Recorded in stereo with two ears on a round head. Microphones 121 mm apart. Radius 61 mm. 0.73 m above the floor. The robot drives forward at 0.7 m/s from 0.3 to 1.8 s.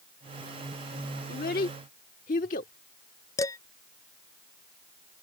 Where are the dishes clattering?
25° left (ahead or behind).